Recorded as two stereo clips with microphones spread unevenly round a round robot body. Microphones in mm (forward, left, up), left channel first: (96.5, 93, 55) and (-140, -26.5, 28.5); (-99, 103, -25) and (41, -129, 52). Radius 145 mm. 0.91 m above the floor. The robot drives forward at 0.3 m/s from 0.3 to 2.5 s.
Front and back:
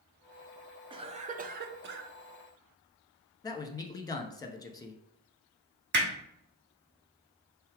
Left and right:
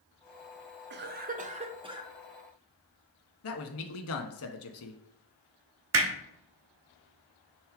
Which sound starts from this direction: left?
A man speaking, at 3.4 s.